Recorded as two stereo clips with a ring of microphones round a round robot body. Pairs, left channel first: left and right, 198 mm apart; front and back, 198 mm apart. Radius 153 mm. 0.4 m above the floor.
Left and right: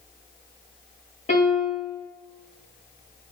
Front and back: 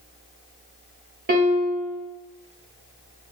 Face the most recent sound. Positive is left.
turn(degrees=150)